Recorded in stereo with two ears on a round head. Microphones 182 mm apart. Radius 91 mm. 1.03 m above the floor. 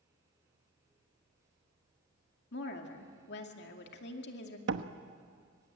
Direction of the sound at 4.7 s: 60° right (ahead or behind).